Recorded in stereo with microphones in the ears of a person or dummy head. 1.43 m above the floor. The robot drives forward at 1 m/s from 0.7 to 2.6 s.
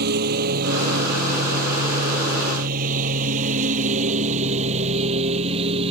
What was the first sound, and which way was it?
A lawn mower, 60° right (ahead or behind).